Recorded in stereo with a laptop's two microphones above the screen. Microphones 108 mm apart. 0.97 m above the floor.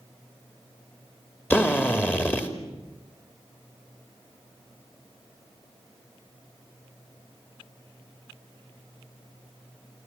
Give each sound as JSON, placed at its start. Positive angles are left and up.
{"t": 1.5, "sound": "a drill", "side_deg": 20, "distance_m": 2.5}